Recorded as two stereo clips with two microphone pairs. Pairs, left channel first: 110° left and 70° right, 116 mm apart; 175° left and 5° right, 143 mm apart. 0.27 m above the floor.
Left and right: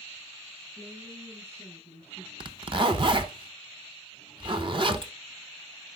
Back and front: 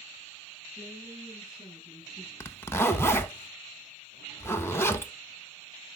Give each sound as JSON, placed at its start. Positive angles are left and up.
{"t": 0.8, "sound": "a woman speaking", "azimuth_deg": -90, "distance_m": 7.0}
{"t": 2.4, "sound": "a zipper", "azimuth_deg": -110, "distance_m": 0.7}